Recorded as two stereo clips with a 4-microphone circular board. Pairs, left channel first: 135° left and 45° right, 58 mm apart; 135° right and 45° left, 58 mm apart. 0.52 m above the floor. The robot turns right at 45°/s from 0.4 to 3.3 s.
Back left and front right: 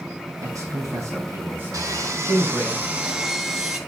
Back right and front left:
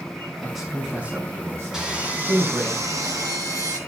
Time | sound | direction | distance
0.4 | a man speaking | 35° right | 4.5 m
1.7 | sawing | 35° right | 3 m